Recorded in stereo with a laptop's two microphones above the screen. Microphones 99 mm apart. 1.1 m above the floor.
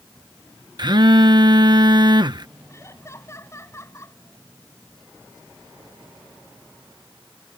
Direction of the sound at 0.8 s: 50° right (ahead or behind).